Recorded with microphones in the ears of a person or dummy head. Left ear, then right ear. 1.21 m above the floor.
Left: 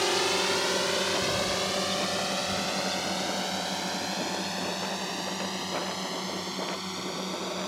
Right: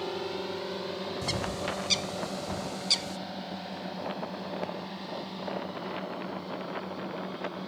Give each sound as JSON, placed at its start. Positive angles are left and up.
{"t": 0.0, "sound": "a drone", "side_deg": 70}
{"t": 1.2, "sound": "a bird", "side_deg": -55}